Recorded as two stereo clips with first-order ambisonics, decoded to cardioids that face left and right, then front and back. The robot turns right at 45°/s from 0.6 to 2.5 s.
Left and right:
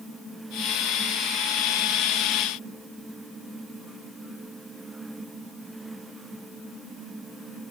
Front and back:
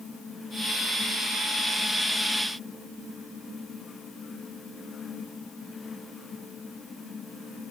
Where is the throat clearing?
I don't hear throat clearing.